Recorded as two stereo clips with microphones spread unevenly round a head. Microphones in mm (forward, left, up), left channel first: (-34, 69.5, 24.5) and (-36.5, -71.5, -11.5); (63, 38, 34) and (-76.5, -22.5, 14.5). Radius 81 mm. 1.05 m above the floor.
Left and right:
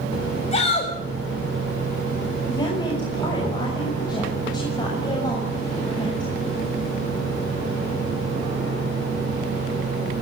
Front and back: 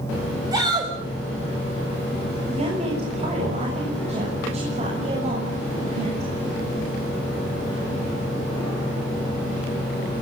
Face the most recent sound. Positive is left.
turn(degrees=150)